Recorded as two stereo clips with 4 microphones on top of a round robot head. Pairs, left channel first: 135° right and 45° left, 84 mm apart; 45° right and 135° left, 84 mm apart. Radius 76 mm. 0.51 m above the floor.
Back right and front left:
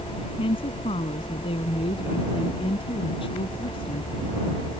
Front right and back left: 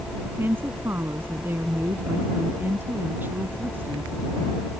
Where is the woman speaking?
155° right.